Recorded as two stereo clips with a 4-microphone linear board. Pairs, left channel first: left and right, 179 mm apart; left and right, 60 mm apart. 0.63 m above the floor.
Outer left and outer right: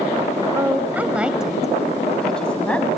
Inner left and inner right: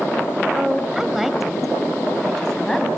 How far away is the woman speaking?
About 3 m.